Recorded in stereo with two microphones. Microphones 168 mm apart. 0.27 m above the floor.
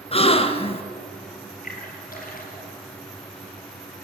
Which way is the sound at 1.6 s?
60° left (ahead or behind).